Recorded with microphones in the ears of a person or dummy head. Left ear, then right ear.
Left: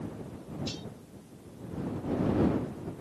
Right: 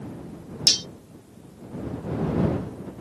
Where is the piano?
No piano in this recording.